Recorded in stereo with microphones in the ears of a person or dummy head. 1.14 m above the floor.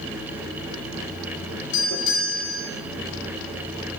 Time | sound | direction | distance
1.7 | a doorbell | 60° left (ahead or behind) | 4 m